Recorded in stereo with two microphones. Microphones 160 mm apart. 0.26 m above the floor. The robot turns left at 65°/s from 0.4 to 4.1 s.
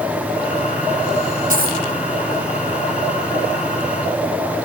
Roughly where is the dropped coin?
Right.